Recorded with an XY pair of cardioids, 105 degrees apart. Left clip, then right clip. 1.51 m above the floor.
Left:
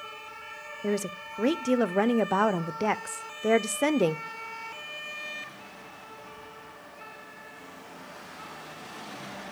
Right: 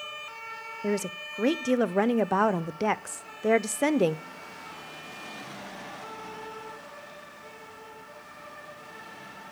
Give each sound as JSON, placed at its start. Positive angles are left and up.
{"t": 0.8, "sound": "a woman speaking", "azimuth_deg": -10, "distance_m": 0.6}